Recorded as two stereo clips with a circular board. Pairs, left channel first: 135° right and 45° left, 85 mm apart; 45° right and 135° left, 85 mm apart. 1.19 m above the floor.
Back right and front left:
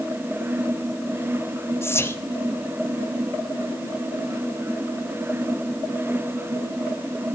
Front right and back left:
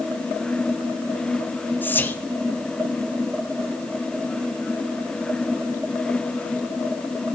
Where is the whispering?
95° right, 0.6 m.